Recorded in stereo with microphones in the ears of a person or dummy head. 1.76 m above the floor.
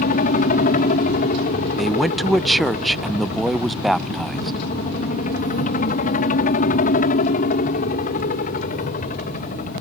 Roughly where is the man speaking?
Centre.